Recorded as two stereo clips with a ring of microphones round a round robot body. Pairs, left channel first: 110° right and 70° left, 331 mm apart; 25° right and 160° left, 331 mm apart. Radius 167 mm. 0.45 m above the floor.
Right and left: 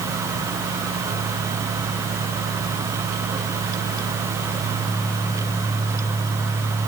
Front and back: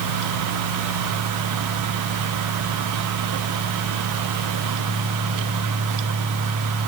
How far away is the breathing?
No breathing in this recording.